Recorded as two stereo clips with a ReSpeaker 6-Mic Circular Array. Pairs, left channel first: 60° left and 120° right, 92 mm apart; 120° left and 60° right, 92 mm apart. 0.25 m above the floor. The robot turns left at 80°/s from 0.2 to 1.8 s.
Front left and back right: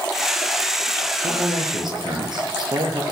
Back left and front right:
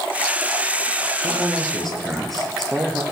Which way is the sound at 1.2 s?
110° right.